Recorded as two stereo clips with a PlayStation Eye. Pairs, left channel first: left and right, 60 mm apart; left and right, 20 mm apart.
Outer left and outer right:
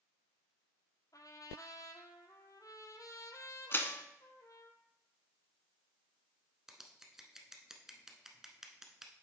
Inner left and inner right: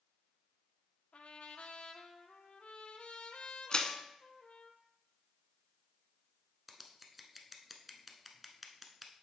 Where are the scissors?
10° right (ahead or behind), 0.8 m.